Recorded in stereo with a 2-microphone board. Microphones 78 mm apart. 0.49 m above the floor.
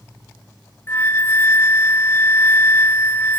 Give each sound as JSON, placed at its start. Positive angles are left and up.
{"t": 0.9, "sound": "a flute", "side_deg": 25, "distance_m": 1.0}